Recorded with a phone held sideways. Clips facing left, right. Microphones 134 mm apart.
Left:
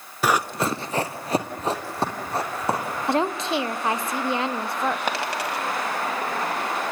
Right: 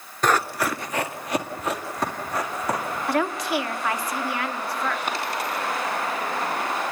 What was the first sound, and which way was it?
Running footsteps, 5° left (ahead or behind).